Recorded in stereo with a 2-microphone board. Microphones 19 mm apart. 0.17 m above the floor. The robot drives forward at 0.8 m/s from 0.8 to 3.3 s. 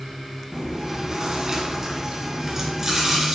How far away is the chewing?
About 1.5 m.